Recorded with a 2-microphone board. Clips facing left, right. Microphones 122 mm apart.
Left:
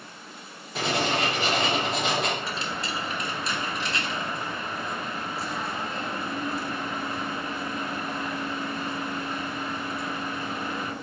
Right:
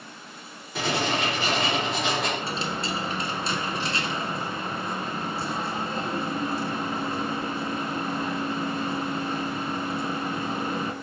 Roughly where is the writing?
Centre.